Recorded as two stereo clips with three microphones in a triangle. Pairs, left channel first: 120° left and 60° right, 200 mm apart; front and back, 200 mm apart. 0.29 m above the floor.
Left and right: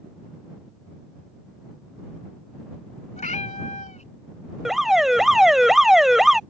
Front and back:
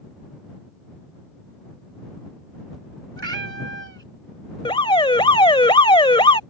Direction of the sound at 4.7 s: 25° left.